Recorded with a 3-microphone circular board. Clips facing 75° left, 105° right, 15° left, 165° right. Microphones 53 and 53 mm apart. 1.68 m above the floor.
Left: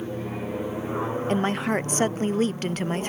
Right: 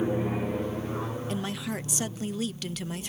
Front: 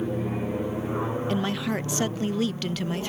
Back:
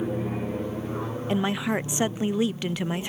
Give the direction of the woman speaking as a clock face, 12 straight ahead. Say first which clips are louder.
Left 9 dB, back 6 dB; 8 o'clock.